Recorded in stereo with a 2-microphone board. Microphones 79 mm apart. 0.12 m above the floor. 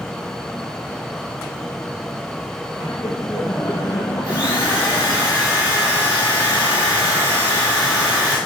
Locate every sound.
2.8 s laughter: 40° left (ahead or behind), 5 m; by 5.2 s 50° left (ahead or behind), 2 m
4.2 s a drill: 40° left (ahead or behind), 7 m